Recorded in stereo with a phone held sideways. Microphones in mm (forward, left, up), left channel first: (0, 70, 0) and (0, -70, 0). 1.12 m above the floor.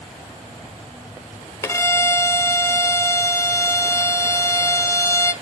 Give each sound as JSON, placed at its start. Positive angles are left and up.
{"t": 1.6, "sound": "a violin", "side_deg": 20, "distance_m": 0.9}